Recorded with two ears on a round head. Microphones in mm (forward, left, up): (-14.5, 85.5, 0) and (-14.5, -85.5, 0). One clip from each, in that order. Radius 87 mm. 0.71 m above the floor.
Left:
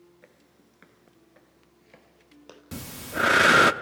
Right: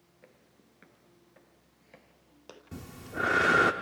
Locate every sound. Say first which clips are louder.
0.2 s footsteps: left 3 dB; 15° left (ahead or behind), 0.7 m; by 2.6 s centre (ahead or behind), 1.1 m
2.7 s breathing: left 6 dB; 65° left (ahead or behind), 0.7 m